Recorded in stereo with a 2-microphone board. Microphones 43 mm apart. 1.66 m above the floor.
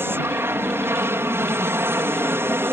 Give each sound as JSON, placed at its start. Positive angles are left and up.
{"t": 0.0, "sound": "an aircraft", "side_deg": -60}